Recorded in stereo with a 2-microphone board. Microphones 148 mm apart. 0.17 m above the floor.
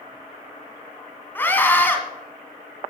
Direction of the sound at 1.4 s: 15° left (ahead or behind).